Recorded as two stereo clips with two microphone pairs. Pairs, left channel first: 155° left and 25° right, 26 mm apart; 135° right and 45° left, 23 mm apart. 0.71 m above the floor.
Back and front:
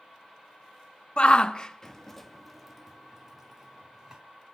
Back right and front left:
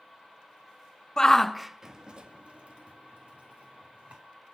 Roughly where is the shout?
Behind.